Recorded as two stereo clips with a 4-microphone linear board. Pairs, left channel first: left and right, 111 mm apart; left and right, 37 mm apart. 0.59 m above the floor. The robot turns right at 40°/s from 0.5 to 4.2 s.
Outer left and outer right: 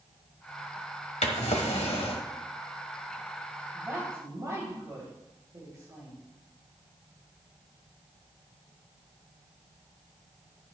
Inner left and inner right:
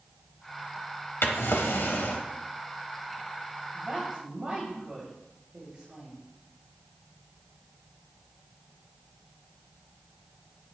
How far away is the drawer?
About 1.3 m.